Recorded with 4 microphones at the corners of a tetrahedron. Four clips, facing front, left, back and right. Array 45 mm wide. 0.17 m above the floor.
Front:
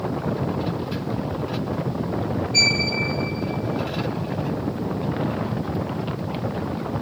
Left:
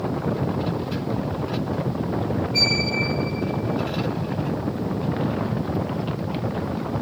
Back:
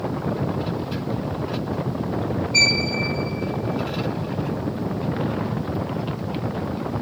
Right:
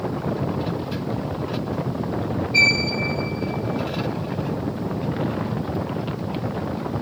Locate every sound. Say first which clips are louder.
2.5 s a violin: right 6 dB, back 1 dB; 90° right, 0.9 m